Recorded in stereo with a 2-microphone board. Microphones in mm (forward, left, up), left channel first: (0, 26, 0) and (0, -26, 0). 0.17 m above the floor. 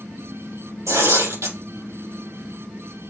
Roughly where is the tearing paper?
Right.